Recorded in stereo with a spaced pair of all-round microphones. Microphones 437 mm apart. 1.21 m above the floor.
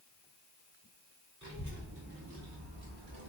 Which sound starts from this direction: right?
A child speaking, at 1.4 s.